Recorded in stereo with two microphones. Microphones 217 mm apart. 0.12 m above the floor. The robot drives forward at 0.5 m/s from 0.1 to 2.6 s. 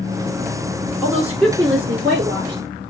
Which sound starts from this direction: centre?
A woman speaking, at 1.0 s.